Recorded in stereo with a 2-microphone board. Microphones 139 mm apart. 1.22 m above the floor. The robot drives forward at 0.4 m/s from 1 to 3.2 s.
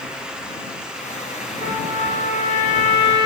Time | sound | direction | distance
1.6 | a trumpet | 70° left (ahead or behind) | 2.5 m